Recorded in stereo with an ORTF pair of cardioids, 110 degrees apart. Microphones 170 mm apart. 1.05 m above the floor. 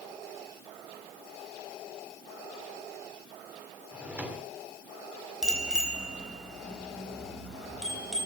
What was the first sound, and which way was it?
A drawer, 10° right.